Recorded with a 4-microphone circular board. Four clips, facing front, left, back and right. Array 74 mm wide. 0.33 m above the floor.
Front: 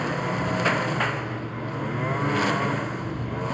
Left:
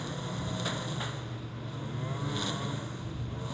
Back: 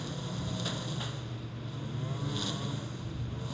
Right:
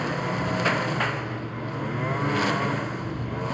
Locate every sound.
0.0 s a lawn mower: 35° right